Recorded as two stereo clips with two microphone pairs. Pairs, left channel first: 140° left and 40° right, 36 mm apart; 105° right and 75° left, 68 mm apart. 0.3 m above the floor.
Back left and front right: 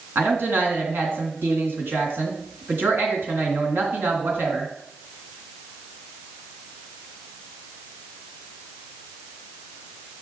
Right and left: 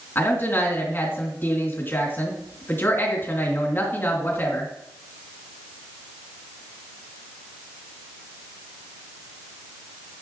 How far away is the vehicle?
No vehicle in this recording.